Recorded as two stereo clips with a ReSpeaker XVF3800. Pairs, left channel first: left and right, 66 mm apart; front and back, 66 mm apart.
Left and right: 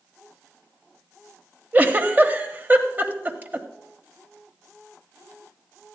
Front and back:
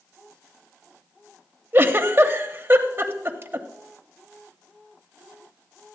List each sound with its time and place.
1.7 s a giggle: 140° right, 0.8 m